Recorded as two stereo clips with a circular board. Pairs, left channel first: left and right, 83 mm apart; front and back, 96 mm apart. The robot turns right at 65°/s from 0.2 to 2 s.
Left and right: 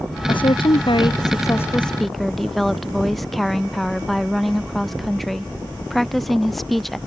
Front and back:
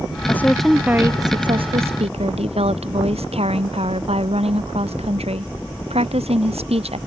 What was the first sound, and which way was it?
A woman speaking, 65° left.